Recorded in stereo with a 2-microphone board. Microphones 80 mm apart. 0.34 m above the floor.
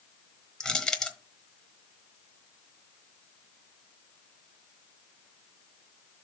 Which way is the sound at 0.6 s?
10° left (ahead or behind).